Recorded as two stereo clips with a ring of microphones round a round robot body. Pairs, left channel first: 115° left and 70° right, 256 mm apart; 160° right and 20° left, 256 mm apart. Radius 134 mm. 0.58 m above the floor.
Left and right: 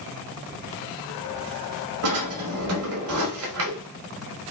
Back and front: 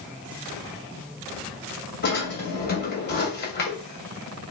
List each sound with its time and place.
2.0 s a drawer: 105° right, 1.3 m